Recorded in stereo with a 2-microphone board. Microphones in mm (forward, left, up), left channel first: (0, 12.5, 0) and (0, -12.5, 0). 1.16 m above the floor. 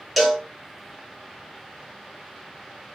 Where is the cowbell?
Centre (ahead or behind), 1.3 m.